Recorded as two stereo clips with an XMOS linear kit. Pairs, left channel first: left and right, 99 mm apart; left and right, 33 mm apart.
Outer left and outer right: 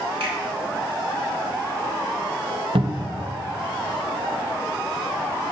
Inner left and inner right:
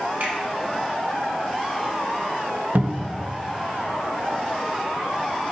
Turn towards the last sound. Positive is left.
turn(degrees=-65)  # may be behind; listen again after turning